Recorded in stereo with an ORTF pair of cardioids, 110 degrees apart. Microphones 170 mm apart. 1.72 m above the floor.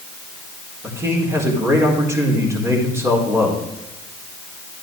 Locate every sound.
0.8 s a man speaking: 15° right, 4.5 m